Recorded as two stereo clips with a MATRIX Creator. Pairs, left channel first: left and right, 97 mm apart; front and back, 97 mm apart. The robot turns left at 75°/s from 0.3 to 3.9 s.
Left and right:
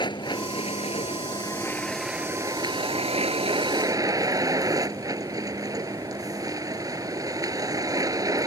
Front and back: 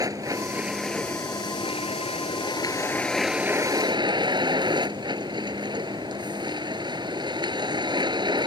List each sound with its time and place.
0.0 s a vehicle: 130° left; by 8.5 s 140° right